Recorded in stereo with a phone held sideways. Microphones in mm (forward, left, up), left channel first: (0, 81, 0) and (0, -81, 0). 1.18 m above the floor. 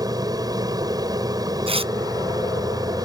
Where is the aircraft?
25° right (ahead or behind).